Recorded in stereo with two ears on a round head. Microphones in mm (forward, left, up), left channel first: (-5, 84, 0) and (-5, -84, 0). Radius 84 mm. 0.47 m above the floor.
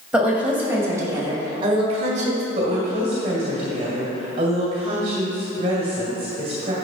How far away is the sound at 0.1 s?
About 2.5 m.